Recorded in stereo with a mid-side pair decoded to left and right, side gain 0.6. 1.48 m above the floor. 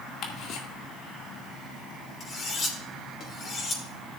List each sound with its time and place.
0.2 s ticking: 60° left, 1.9 m
2.2 s cutlery clinking: 40° left, 3.5 m